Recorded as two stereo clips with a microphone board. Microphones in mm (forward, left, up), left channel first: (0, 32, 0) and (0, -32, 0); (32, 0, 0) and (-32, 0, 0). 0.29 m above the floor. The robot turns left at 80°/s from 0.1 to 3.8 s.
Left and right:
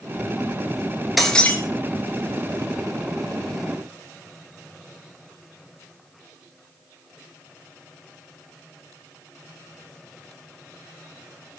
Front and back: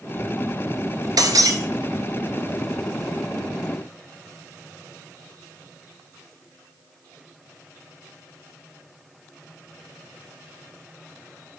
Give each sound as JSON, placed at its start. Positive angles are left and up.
{"t": 1.2, "sound": "breaking glass", "azimuth_deg": 180, "distance_m": 2.5}